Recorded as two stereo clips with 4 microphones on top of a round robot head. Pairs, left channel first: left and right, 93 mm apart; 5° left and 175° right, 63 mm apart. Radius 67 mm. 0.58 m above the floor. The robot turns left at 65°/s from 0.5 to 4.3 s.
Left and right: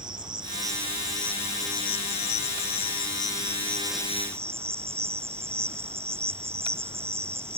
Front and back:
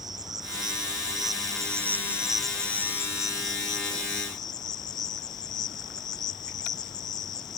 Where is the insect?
140° right; by 7.6 s 25° right.